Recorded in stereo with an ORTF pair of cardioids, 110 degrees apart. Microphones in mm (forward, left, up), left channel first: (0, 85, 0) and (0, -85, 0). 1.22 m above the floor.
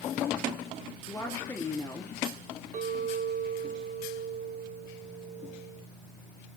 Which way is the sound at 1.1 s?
15° left.